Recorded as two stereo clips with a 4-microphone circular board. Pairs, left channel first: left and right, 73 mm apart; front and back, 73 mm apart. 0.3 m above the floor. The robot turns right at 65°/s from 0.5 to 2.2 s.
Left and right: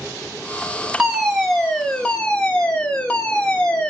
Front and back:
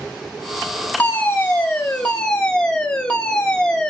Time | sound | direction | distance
1.0 | a fire alarm | 25° right | 1.8 m